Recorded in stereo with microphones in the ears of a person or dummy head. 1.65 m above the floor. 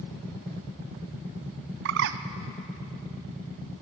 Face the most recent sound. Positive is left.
turn(degrees=-65)  # may be behind; listen again after turning